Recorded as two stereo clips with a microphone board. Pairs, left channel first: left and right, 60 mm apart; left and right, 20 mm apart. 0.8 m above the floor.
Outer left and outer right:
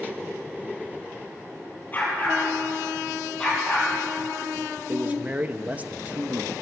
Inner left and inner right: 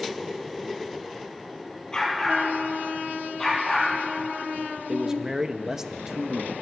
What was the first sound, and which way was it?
A dog barking, 30° left (ahead or behind).